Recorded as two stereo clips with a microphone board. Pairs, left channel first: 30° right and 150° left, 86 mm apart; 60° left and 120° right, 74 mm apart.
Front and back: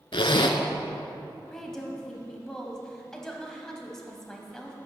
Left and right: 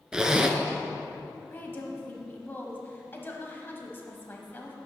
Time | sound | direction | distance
0.1 | a zipper | 40° right | 0.6 m
1.5 | a woman speaking | 50° left | 1.1 m